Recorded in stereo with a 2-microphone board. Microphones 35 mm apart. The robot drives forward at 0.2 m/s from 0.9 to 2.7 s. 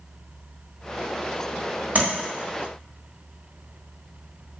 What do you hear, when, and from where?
1.9 s tapping: 45° right (ahead or behind), 1.5 m